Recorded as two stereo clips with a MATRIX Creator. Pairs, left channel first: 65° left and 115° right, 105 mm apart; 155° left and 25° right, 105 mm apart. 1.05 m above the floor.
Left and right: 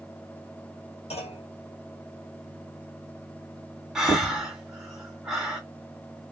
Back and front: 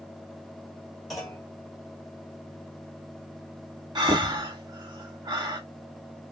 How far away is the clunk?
About 1.5 m.